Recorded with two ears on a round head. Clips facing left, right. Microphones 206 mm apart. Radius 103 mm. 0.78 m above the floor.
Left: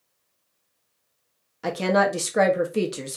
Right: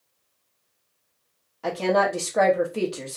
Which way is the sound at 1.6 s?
20° left (ahead or behind).